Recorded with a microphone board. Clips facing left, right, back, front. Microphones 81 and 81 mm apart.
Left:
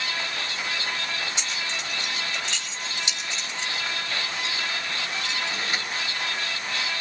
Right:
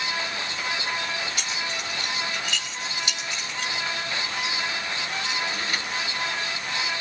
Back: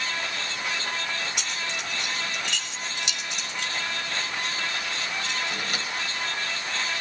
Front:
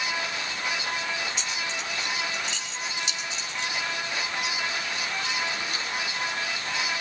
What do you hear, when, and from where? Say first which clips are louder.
1.4 s keys jangling: right 1 dB, even; 155° left, 5 m